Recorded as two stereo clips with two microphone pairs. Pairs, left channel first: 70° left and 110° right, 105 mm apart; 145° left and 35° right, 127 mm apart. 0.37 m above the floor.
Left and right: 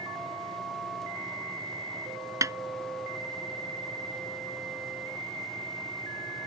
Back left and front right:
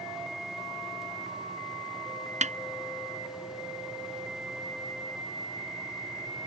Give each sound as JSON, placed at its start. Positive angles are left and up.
{"t": 2.4, "sound": "a snare drum", "azimuth_deg": -55}